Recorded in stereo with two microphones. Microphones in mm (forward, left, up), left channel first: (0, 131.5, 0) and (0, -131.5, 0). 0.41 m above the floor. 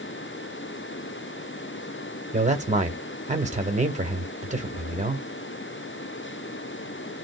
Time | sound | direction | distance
2.3 | a man speaking | 25° right (ahead or behind) | 1.3 m